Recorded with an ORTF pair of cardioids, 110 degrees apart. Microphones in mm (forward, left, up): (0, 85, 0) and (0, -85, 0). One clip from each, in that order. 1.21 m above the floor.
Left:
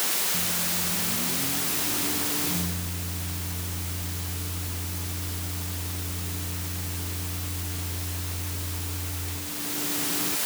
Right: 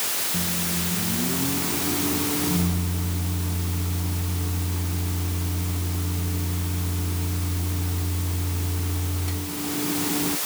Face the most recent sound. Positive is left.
turn(degrees=-45)